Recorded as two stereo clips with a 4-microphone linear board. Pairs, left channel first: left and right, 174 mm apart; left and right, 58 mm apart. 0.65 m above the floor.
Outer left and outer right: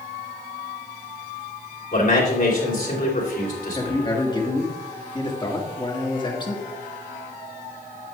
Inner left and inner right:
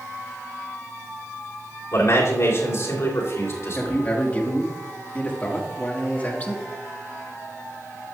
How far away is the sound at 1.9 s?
About 3 m.